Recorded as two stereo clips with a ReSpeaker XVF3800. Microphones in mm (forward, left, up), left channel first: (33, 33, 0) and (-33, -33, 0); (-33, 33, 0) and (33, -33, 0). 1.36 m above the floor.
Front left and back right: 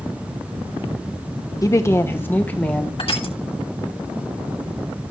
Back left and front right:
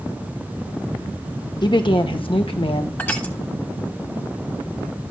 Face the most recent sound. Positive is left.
turn(degrees=65)